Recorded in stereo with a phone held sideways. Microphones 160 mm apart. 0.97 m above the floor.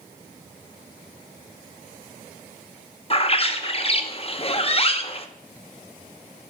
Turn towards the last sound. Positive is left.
turn(degrees=40)  # may be behind; listen again after turning